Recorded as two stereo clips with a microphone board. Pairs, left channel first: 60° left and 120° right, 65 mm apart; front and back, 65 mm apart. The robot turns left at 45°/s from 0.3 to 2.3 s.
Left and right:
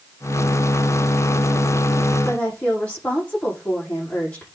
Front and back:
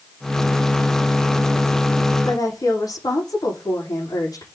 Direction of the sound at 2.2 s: 5° right.